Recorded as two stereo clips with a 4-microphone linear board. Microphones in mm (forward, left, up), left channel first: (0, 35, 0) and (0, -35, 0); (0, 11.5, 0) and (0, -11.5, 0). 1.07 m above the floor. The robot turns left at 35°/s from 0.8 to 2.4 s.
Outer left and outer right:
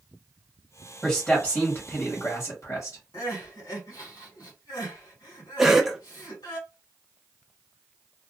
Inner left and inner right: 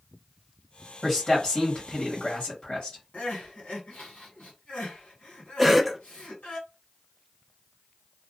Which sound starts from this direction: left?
Crying, at 3.1 s.